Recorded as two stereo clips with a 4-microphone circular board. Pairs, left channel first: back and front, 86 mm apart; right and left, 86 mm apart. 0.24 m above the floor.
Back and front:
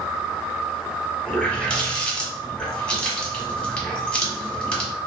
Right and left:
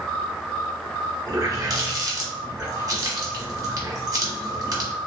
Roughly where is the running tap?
Left.